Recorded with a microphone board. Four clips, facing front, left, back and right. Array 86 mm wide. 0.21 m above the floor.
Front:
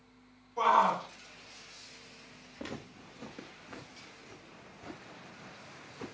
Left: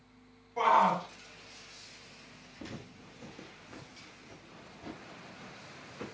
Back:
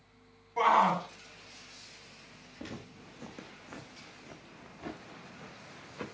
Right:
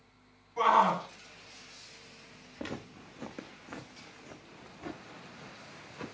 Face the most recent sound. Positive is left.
turn(degrees=-170)